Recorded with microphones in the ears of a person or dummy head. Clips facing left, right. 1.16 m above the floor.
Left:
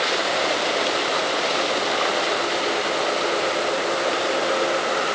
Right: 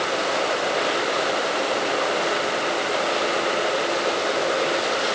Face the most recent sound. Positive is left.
No sound to turn to.